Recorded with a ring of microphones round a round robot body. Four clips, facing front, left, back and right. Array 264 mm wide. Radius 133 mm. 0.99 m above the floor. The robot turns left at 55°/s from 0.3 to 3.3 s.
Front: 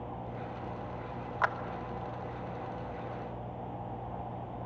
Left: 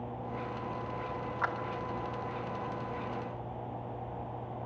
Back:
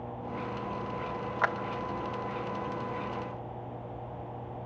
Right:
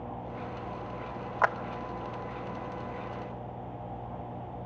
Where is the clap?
105° right, 1.0 m; by 1.6 s 110° right, 1.0 m.